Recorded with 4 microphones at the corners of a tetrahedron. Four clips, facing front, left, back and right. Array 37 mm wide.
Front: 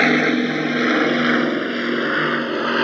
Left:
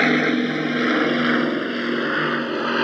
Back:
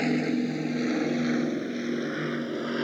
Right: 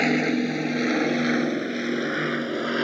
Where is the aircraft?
20° left; by 2.9 s 15° left.